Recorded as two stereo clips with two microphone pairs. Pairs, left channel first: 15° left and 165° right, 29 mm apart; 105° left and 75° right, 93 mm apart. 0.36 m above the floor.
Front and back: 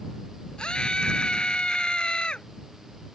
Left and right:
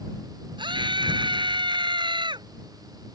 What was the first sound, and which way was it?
A scream, 45° right.